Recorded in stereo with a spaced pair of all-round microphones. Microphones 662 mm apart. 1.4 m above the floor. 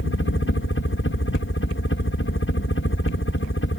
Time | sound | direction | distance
0.0 | a helicopter | 20° left (ahead or behind) | ?